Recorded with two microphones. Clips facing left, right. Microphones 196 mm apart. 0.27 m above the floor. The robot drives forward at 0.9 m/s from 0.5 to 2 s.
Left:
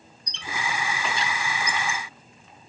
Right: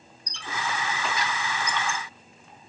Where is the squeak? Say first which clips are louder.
Even; 20° left (ahead or behind), 2.5 m; by 2.0 s 45° left (ahead or behind), 1.2 m.